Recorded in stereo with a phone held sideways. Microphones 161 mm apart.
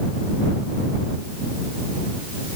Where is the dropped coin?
No dropped coin in this recording.